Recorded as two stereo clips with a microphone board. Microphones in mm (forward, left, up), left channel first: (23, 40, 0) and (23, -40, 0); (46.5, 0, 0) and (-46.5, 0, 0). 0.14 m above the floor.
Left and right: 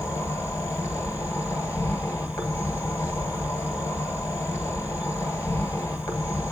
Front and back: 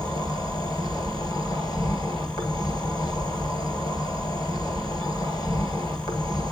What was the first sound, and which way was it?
An insect, 40° left.